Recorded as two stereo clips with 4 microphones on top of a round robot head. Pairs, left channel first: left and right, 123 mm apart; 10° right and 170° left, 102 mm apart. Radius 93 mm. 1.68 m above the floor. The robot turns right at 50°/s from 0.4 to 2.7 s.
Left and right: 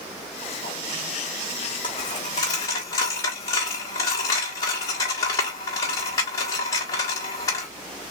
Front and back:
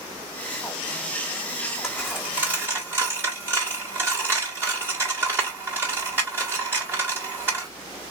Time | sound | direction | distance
1.8 | a dropped coin | 80° left | 1.3 m